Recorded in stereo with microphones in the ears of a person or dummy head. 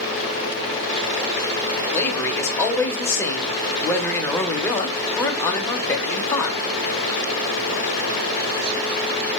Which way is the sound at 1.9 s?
10° left (ahead or behind).